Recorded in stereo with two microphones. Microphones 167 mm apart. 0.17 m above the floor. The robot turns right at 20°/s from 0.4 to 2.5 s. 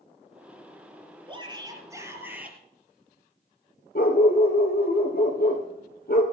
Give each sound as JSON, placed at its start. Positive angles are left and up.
{"t": 1.3, "sound": "a shout", "side_deg": -30, "distance_m": 3.5}
{"t": 4.0, "sound": "a dog barking", "side_deg": 65, "distance_m": 1.8}